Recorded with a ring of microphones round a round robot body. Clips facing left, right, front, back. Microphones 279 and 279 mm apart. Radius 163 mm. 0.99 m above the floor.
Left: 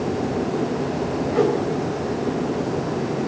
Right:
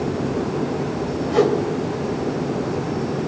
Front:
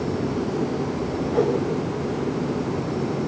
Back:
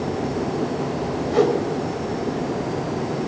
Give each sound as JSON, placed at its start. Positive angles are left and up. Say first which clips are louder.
{"t": 1.3, "sound": "a whoosh", "louder": "right 3 dB, back 3 dB", "azimuth_deg": -125, "distance_m": 3.5}